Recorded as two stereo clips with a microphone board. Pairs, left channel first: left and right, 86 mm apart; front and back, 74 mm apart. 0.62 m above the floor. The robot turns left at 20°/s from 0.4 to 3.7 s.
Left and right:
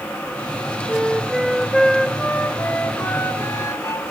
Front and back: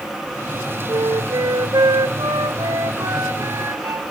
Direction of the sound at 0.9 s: 170° right.